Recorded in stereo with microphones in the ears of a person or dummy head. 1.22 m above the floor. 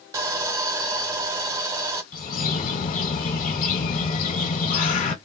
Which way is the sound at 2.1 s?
50° left (ahead or behind).